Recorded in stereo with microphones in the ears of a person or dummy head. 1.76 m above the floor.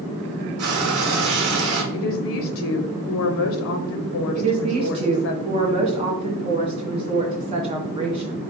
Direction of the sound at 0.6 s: 65° right (ahead or behind).